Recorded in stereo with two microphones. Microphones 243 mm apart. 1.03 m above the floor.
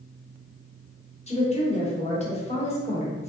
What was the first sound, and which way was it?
A woman speaking, 25° left (ahead or behind).